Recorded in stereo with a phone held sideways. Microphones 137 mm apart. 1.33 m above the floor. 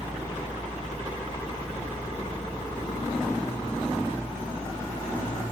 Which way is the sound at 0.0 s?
30° left (ahead or behind).